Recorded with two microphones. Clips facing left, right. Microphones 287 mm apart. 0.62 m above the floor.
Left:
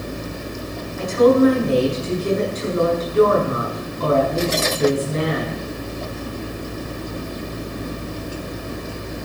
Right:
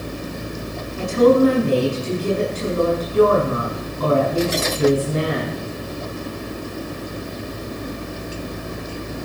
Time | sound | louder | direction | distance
1.0 | a woman speaking | even | 35° right (ahead or behind) | 6 m